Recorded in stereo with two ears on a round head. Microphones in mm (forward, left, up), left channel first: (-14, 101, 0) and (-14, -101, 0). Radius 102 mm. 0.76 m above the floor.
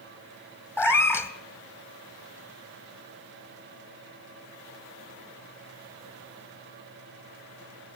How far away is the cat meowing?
About 1.1 m.